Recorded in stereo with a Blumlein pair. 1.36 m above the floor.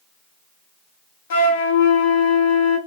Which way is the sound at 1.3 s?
55° left.